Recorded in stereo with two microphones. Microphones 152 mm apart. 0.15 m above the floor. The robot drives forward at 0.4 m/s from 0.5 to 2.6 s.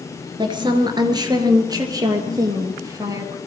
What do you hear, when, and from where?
0.4 s a woman speaking: 30° right (ahead or behind), 1.9 m; by 3.4 s 20° right (ahead or behind), 2.5 m